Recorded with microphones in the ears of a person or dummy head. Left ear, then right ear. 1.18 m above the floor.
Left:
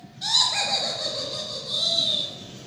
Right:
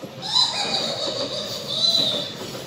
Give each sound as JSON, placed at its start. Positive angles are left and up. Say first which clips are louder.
{"t": 0.2, "sound": "laughter", "louder": "right 1 dB", "side_deg": 30, "distance_m": 0.5}